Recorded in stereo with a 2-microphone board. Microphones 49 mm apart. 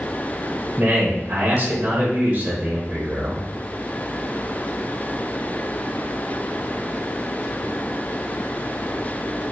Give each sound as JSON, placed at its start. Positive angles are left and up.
{"t": 0.8, "sound": "a man speaking", "side_deg": -40, "distance_m": 1.0}